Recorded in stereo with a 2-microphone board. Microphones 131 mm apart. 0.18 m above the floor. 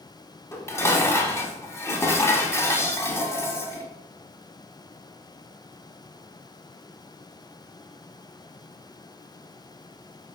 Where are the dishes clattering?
20° left (ahead or behind), 0.8 m.